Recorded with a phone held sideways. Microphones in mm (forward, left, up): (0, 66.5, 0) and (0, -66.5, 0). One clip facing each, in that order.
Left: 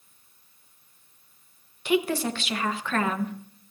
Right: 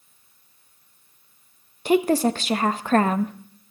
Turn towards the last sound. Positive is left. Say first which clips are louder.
# right 6 dB
turn(degrees=-40)  # may be behind; listen again after turning